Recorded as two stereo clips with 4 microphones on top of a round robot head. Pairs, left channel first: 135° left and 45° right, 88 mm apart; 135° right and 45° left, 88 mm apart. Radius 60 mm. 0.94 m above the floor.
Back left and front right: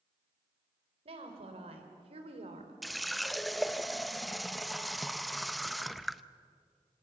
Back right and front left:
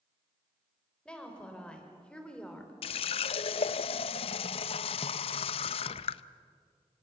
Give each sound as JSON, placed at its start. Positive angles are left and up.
{"t": 1.1, "sound": "a woman speaking", "azimuth_deg": -55, "distance_m": 4.0}
{"t": 2.8, "sound": "a running tap", "azimuth_deg": -135, "distance_m": 0.5}